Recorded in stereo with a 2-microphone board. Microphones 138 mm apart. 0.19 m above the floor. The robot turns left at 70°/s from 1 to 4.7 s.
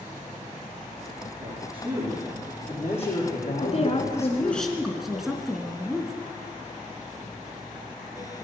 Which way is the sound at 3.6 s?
75° left.